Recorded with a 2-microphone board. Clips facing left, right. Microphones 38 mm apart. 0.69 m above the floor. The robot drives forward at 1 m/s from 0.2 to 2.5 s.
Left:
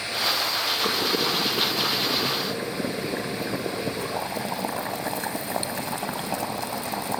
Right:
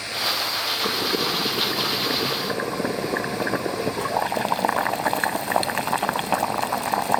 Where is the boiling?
30° right (ahead or behind), 3 m; by 7.2 s 60° right (ahead or behind), 1.6 m.